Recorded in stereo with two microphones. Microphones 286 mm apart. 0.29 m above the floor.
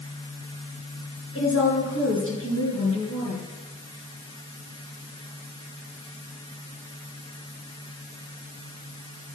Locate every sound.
1.4 s a woman speaking: 50° left (ahead or behind), 4.5 m